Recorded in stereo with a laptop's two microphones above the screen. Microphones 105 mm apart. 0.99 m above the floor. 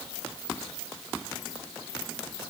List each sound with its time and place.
Only background noise.